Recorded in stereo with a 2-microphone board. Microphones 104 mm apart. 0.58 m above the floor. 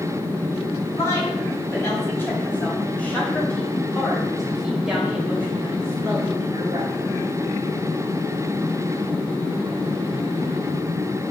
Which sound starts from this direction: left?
A woman speaking, at 0.9 s.